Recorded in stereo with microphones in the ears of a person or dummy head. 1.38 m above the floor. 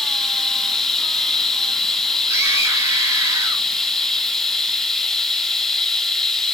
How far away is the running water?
About 0.9 m.